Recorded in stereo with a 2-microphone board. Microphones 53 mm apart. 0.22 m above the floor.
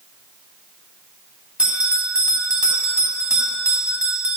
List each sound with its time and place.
1.6 s a bell: 20° right (ahead or behind), 1.9 m